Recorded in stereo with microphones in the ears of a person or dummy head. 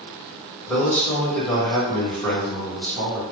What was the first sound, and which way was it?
A man speaking, 10° left (ahead or behind).